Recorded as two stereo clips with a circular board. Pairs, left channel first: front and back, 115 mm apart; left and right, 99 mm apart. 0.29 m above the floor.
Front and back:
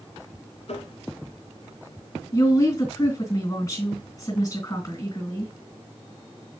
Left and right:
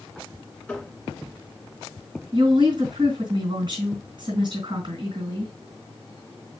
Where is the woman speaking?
60° right, 3.5 m.